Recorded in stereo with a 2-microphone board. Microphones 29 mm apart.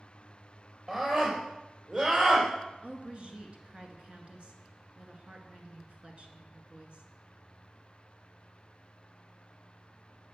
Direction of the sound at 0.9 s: 30° right (ahead or behind).